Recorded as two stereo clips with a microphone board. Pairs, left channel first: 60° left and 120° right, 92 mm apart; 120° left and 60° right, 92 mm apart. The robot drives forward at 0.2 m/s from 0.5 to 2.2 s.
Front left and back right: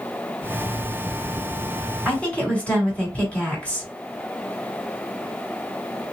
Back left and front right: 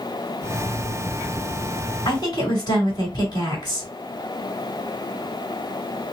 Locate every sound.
2.0 s a woman speaking: 135° left, 1.9 m